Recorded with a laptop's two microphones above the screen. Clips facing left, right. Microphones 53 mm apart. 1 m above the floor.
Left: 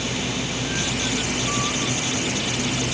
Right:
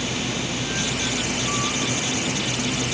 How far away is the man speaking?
No man speaking in this recording.